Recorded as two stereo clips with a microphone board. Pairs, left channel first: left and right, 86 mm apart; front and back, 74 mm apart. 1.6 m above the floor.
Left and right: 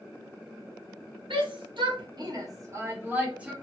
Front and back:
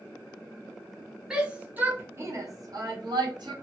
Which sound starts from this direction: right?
A shout, at 1.3 s.